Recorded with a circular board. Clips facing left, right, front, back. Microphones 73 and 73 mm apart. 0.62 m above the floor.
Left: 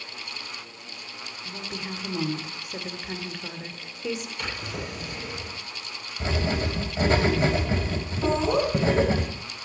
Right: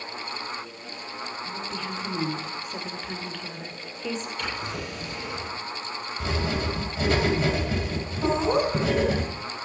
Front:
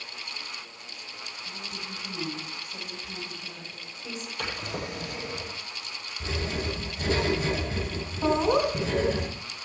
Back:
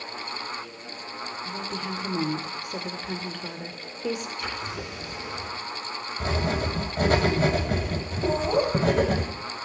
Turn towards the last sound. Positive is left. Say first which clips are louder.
# even, front 1 dB
turn(degrees=-10)